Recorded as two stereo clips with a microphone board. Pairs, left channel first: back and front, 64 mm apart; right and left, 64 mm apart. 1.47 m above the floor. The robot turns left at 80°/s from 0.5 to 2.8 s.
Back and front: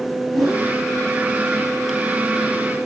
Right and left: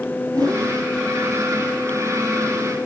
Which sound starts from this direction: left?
A whoosh, at 0.3 s.